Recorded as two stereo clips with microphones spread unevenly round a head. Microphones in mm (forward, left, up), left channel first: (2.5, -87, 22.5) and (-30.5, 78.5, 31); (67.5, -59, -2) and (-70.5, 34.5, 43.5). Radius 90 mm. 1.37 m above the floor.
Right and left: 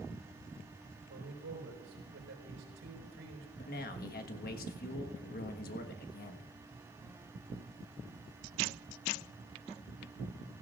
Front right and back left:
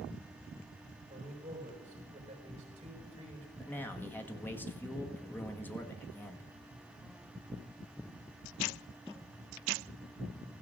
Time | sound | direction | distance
1.1 | a man speaking | 95° left | 5 m
3.6 | a man speaking | 115° right | 1.4 m